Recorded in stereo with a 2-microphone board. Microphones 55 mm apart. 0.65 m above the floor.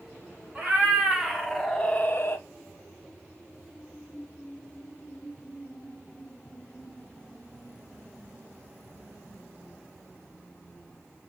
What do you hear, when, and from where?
0.6 s a cat meowing: 15° right (ahead or behind), 1.4 m; by 2.4 s 45° left (ahead or behind), 0.6 m